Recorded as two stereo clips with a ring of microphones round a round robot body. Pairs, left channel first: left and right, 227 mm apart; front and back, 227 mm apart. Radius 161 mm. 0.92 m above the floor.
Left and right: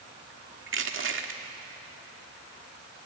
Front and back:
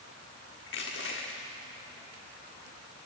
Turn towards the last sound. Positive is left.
turn(degrees=-60)